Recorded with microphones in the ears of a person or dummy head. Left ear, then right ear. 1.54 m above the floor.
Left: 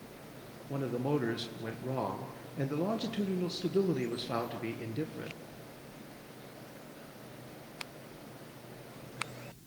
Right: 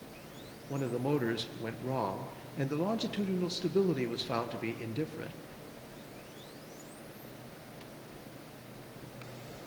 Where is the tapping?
No tapping in this recording.